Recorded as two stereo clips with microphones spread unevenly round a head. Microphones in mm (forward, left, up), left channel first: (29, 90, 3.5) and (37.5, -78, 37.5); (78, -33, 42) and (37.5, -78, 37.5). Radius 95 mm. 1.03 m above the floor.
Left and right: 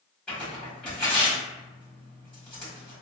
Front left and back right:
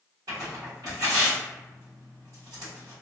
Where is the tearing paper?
Straight behind, 1.5 m.